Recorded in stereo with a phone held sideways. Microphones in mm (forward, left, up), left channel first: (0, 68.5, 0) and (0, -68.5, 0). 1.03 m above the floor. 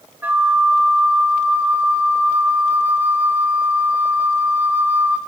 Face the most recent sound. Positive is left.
turn(degrees=-15)  # may be behind; listen again after turning